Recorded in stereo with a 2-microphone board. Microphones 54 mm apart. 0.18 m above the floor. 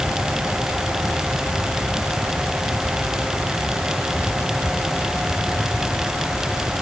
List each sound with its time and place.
Only background noise.